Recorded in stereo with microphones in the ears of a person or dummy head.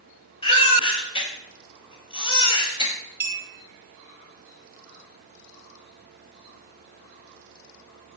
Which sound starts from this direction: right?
A clink, at 3.2 s.